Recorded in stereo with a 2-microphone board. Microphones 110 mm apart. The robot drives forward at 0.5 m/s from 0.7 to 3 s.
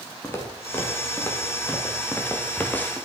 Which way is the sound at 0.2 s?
20° left (ahead or behind).